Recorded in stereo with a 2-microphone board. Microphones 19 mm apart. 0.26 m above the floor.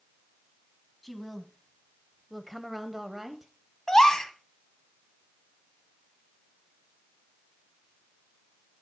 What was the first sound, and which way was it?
A woman speaking, 10° left (ahead or behind).